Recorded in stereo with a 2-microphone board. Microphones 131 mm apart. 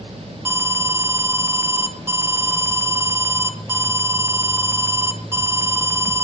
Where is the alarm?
20° right (ahead or behind), 1.4 m.